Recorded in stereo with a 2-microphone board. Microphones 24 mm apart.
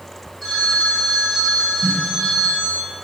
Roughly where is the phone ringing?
Centre.